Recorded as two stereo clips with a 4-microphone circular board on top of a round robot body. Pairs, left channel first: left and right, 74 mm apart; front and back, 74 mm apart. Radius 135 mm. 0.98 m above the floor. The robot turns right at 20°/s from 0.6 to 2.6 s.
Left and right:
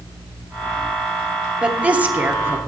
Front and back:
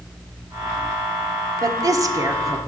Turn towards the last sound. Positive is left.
turn(degrees=-140)